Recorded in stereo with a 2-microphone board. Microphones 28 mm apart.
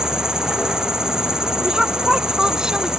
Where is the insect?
25° right (ahead or behind).